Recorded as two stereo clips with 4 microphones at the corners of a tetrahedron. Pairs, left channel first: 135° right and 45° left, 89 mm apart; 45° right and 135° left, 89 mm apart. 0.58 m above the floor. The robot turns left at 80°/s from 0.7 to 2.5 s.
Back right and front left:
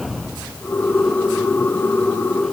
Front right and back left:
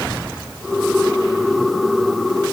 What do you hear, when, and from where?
Only background noise.